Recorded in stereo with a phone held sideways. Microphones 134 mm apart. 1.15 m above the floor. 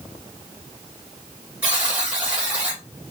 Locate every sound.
1.6 s a buzzer: 10° right (ahead or behind), 1.3 m